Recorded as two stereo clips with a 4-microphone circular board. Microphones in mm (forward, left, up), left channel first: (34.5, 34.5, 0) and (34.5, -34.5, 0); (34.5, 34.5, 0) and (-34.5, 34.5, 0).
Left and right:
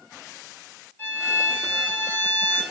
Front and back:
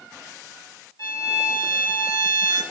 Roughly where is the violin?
Ahead left.